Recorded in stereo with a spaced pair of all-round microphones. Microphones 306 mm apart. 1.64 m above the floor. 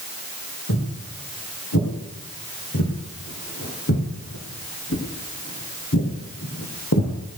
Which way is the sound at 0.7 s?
60° left (ahead or behind).